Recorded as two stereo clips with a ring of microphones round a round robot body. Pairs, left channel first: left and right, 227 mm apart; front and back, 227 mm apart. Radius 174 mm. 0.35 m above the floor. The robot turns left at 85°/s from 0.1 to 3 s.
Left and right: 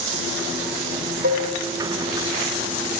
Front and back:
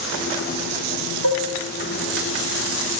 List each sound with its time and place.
1.2 s dishes clattering: 150° right, 3 m; by 1.5 s 170° right, 3 m